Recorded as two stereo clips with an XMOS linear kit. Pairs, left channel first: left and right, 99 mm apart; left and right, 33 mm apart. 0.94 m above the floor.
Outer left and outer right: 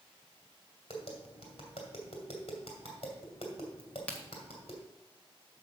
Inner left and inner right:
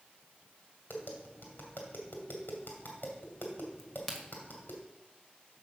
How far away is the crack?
About 1.6 m.